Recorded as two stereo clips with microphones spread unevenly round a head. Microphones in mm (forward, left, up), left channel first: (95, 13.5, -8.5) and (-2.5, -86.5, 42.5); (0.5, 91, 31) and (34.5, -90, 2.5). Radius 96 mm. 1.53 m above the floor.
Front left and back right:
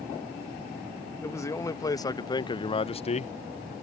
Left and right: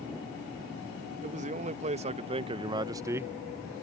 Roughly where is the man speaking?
Ahead right.